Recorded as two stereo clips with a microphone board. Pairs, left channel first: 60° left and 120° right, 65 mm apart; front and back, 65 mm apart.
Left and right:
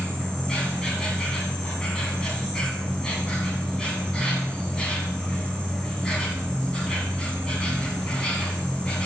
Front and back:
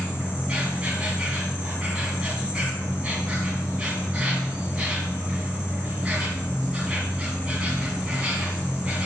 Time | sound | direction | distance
0.0 | an insect | 125° left | 2.0 m